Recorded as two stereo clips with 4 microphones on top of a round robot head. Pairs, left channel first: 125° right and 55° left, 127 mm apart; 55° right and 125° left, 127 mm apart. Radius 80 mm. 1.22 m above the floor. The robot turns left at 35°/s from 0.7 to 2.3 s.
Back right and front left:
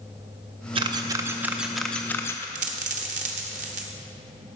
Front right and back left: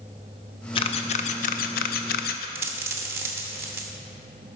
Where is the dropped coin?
60° left, 0.7 m.